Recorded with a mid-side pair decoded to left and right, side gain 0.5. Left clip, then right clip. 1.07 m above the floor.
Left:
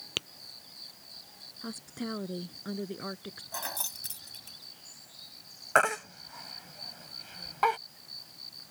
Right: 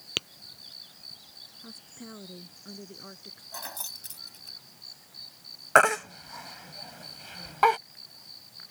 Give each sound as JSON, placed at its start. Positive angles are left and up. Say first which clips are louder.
{"t": 0.2, "sound": "tapping", "louder": "right 3 dB", "azimuth_deg": -20}
{"t": 1.6, "sound": "a woman speaking", "louder": "left 6 dB", "azimuth_deg": 50}
{"t": 3.5, "sound": "keys jangling", "louder": "left 2 dB", "azimuth_deg": 20}
{"t": 5.8, "sound": "a baby crying", "louder": "right 5 dB", "azimuth_deg": -35}